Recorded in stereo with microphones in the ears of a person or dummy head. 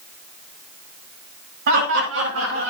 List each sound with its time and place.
1.7 s laughter: 80° right, 2.5 m; by 2.7 s 75° right (ahead or behind), 3.5 m